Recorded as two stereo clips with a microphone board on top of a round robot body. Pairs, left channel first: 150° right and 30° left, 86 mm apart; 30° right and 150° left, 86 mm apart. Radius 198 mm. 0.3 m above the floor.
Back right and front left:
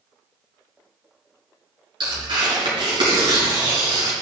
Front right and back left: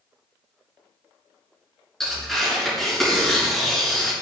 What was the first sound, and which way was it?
Tearing paper, 55° left.